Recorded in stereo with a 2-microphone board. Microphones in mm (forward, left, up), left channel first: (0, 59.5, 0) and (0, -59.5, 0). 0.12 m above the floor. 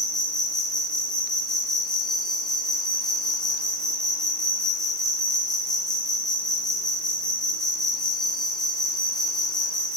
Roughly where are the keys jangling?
I don't hear keys jangling.